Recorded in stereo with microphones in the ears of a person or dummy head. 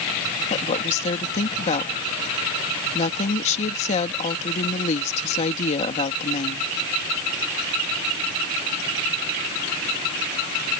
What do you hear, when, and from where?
0.5 s a woman speaking: 40° left (ahead or behind)